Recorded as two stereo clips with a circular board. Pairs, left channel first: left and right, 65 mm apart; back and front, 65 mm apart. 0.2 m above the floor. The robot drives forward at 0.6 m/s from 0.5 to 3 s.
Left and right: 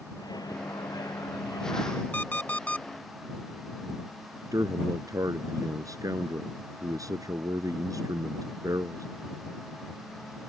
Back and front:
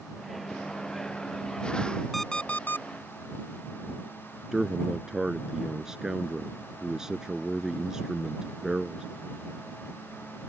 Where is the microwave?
95° left.